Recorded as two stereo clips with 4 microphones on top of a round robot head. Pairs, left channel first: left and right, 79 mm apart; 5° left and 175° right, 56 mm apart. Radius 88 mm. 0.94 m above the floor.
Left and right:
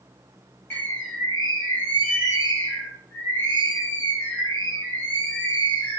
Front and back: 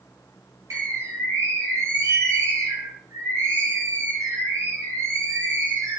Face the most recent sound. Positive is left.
turn(degrees=160)